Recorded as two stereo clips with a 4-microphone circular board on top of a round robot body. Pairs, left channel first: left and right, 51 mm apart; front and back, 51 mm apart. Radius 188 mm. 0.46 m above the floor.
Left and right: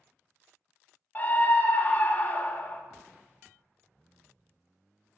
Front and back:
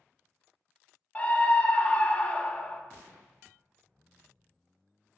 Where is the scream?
50° left, 1.3 m.